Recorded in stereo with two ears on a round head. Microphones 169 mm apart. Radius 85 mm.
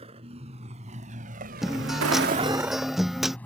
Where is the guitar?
Centre (ahead or behind).